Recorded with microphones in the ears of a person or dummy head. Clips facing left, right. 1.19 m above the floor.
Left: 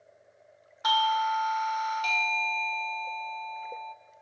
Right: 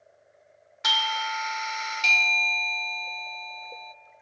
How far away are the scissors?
No scissors in this recording.